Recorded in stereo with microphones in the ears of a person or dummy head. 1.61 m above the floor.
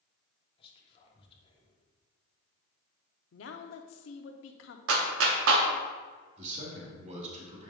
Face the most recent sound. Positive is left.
turn(degrees=-35)  # may be behind; listen again after turning